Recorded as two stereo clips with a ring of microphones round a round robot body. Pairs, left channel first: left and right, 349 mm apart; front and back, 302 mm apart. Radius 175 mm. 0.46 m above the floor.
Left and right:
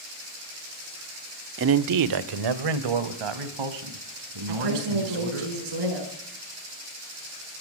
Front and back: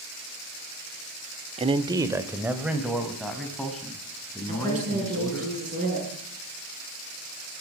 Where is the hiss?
I don't hear a hiss.